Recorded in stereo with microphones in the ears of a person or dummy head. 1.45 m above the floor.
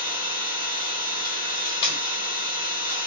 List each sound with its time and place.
0.0 s an engine running: 20° right (ahead or behind), 3 m
1.6 s tape being pulled: 30° left (ahead or behind), 1.6 m